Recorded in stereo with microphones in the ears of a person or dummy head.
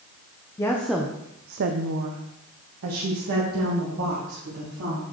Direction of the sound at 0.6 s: 15° left (ahead or behind).